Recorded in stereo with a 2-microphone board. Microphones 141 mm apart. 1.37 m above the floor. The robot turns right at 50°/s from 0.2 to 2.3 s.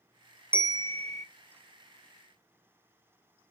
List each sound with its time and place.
0.5 s a bell: 165° right, 0.7 m; by 1.2 s 125° right, 0.7 m